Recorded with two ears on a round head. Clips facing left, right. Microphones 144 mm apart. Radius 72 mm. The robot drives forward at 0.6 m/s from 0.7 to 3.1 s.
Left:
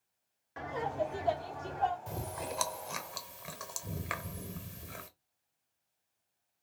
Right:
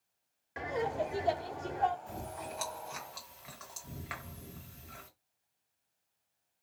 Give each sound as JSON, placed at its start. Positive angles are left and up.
{"t": 0.6, "sound": "laughter", "side_deg": -15, "distance_m": 0.8}
{"t": 2.1, "sound": "chewing", "side_deg": 65, "distance_m": 1.0}